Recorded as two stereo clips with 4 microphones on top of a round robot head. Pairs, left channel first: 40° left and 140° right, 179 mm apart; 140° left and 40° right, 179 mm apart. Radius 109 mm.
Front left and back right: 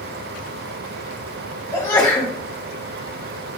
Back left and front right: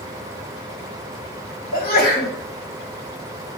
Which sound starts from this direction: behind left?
A sneeze, at 1.7 s.